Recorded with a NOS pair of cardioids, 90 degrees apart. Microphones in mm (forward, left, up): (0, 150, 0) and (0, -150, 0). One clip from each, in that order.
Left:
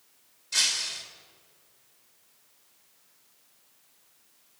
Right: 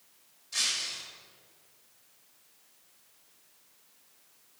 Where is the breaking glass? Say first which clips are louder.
Left 4 dB; 55° left, 3 m.